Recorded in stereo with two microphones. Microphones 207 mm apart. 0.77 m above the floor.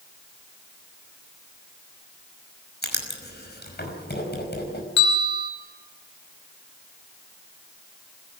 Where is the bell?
60° left (ahead or behind), 4.5 m.